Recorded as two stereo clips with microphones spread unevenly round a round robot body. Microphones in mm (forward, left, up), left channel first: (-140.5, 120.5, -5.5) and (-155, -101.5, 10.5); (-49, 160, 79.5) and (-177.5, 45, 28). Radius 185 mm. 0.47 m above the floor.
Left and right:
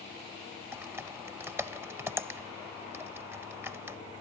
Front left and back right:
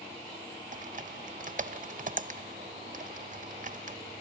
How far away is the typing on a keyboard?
About 1.2 m.